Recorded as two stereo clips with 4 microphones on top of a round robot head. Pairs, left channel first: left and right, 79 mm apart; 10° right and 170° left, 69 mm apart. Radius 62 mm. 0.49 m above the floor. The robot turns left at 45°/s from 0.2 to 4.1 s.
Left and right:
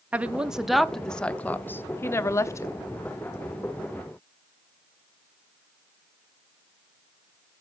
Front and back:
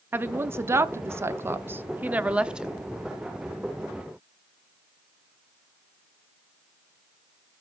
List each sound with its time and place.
0.1 s a woman speaking: 155° right, 0.8 m; by 2.8 s 90° left, 0.8 m